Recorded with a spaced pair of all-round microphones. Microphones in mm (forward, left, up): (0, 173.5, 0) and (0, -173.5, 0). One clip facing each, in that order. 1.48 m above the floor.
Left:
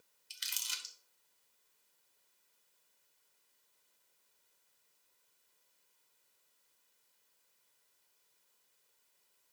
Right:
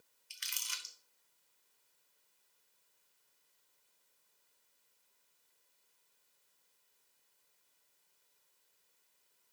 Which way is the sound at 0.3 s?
50° left (ahead or behind).